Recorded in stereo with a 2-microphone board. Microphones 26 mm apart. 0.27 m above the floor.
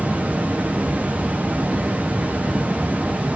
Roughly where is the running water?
Right.